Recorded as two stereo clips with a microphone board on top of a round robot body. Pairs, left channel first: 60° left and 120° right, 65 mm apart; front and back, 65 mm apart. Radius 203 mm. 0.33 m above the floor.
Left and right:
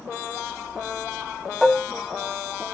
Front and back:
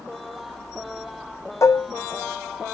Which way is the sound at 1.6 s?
25° right.